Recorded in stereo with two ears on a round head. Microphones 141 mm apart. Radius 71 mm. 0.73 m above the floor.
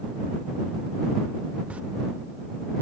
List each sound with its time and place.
1.7 s a camera shutter: 10° right (ahead or behind)